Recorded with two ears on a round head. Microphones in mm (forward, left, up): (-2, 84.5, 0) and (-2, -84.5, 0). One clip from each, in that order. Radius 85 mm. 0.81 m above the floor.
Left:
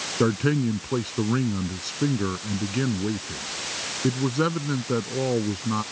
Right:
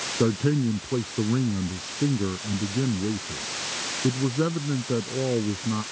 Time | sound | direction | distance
0.2 | a man speaking | 55° left (ahead or behind) | ?